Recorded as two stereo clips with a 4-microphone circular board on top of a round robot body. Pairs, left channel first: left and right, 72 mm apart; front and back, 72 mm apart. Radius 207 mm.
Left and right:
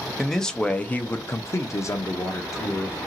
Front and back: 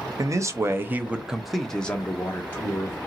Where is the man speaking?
Straight behind, 0.9 m; by 3.0 s 50° left, 1.2 m.